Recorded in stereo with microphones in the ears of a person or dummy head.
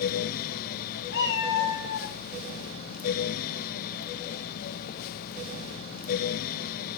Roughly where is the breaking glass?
I don't hear breaking glass.